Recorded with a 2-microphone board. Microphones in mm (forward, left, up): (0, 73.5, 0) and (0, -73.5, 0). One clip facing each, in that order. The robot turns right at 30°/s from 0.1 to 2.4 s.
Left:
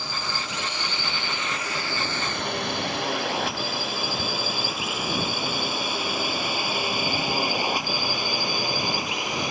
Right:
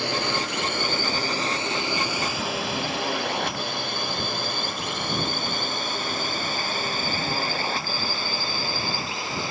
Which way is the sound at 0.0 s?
75° right (ahead or behind).